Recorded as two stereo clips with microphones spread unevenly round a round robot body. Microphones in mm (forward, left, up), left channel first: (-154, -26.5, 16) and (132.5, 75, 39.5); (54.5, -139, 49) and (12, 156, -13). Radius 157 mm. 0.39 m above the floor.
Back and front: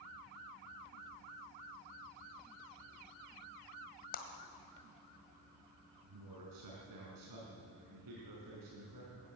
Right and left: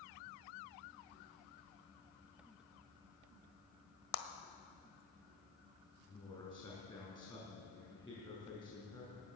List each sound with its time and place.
4.1 s a clap: 105° right, 1.6 m
6.0 s a man speaking: 5° right, 5 m